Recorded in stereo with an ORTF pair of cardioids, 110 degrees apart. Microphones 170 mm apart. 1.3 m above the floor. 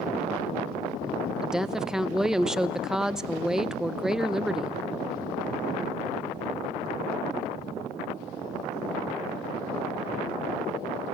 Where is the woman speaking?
5° right, 0.6 m.